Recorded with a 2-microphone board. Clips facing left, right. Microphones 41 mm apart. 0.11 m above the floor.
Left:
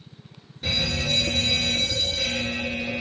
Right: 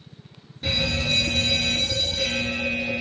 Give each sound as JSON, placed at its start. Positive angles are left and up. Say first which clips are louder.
{"t": 0.6, "sound": "a fire alarm", "louder": "right 1 dB", "side_deg": -5, "distance_m": 3.0}